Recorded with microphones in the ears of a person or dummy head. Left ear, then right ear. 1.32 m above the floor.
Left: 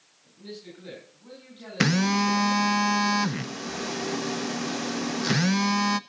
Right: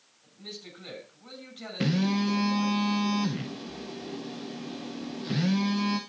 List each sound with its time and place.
0.2 s a man speaking: 55° right (ahead or behind), 7.5 m
1.8 s a phone buzzing: 55° left (ahead or behind), 0.5 m